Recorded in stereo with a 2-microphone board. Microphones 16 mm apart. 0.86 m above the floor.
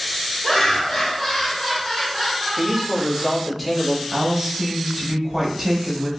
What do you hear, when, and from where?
0.4 s laughter: 35° left (ahead or behind), 1.4 m; by 3.3 s 30° right (ahead or behind), 0.9 m
2.6 s a man speaking: 10° right (ahead or behind), 1.5 m
4.1 s a woman speaking: 25° right (ahead or behind), 1.0 m